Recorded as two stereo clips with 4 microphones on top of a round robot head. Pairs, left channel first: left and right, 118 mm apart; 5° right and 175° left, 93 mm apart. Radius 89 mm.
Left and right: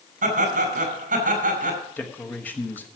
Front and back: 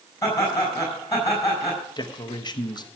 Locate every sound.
0.2 s laughter: 70° right, 5 m
2.0 s a man speaking: 15° left, 1.0 m